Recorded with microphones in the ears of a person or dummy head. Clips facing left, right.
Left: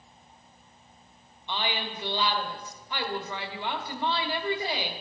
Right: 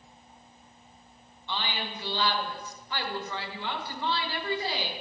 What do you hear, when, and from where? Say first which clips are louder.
1.5 s a woman speaking: left 2 dB; 15° left (ahead or behind), 1.3 m